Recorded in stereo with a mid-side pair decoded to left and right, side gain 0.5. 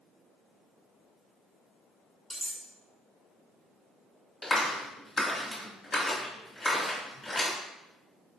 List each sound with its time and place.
2.3 s cutlery clinking: 5° right, 0.9 m
4.4 s a clap: 35° left, 1.5 m